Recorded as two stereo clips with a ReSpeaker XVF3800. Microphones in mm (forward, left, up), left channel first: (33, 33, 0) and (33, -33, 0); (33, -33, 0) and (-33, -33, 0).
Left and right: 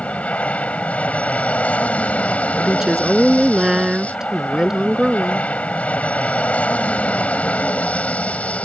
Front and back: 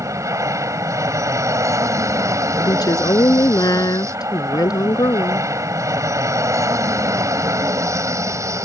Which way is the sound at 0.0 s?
155° left.